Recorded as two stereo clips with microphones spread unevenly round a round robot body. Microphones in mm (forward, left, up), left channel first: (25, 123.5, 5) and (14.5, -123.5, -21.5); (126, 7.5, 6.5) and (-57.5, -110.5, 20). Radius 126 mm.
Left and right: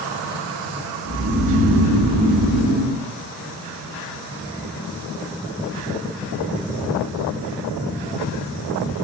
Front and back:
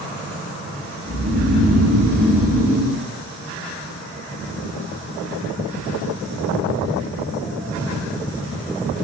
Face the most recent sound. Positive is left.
turn(degrees=-105)